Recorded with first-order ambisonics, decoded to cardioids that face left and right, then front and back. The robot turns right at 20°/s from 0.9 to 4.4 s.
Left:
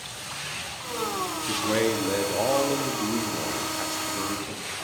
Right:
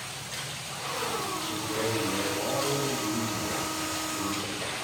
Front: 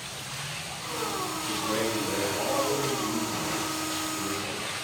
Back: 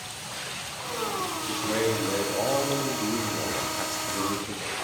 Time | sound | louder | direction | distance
1.5 | a man speaking | left 8 dB, back 2 dB | 90° left | 1.7 m